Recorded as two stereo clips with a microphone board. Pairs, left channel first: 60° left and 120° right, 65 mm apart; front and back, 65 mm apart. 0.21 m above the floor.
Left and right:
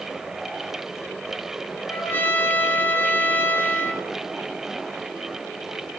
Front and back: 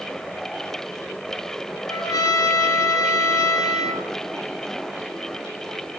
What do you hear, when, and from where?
1.9 s a trumpet: 5° left, 0.6 m